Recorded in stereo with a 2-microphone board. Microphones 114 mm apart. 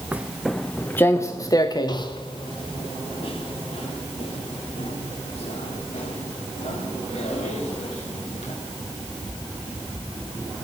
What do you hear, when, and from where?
0.1 s footsteps: 15° right (ahead or behind), 0.8 m; by 8.5 s 70° left (ahead or behind), 4.5 m